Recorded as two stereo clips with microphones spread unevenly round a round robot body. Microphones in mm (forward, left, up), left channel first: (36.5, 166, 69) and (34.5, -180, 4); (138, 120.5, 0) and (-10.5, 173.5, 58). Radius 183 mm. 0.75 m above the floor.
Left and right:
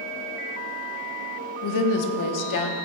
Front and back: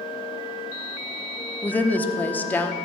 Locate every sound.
1.6 s a woman speaking: 50° left, 1.3 m